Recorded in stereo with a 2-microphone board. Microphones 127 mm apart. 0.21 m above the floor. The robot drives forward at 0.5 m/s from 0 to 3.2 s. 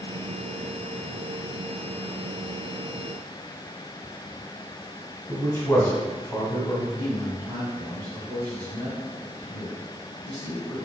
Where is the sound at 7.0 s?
25° right (ahead or behind), 1.4 m.